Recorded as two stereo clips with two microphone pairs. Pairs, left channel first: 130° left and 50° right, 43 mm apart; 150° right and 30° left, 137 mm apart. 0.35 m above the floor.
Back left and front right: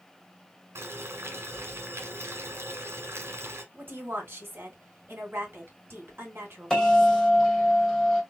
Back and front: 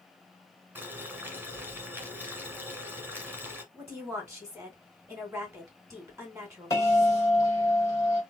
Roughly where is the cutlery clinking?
I don't hear cutlery clinking.